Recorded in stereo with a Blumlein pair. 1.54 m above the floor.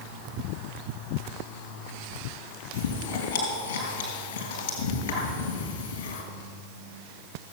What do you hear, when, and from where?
2.7 s chewing: 60° left, 4 m